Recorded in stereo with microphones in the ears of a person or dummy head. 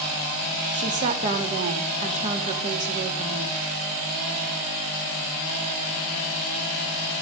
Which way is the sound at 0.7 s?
35° right (ahead or behind).